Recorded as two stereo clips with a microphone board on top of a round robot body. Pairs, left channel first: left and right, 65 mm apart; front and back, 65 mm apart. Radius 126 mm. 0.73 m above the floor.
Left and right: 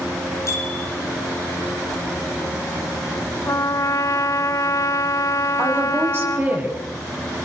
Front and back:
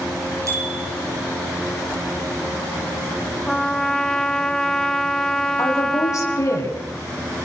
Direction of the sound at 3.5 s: 80° left.